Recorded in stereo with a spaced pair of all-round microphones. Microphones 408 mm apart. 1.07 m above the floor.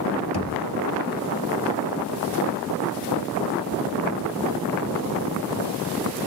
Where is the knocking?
70° left (ahead or behind), 2.5 m.